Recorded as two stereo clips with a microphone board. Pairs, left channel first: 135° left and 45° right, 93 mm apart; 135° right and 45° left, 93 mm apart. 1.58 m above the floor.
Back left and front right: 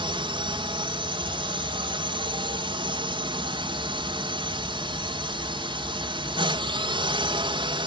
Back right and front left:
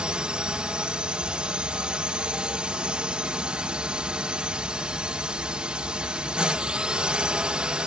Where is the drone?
30° right.